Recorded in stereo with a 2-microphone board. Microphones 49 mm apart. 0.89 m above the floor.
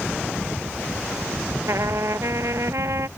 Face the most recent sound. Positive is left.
turn(degrees=-80)